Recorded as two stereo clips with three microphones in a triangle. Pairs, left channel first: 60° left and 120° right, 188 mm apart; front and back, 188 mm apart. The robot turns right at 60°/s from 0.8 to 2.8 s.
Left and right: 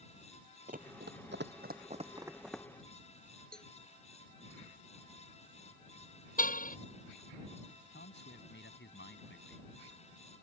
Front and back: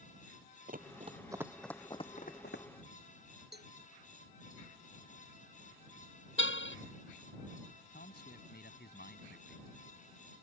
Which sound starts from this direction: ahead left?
A man speaking, at 7.9 s.